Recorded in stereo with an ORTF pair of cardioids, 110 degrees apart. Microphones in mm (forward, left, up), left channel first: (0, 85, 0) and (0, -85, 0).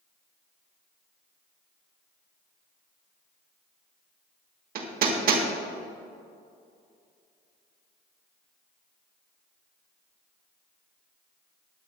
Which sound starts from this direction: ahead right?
Hammering, at 4.8 s.